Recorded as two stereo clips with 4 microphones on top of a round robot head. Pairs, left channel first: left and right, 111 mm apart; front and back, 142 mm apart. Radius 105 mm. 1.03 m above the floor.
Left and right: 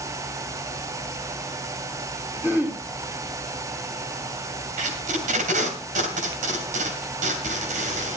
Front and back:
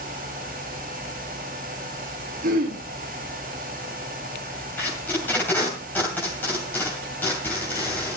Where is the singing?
No singing in this recording.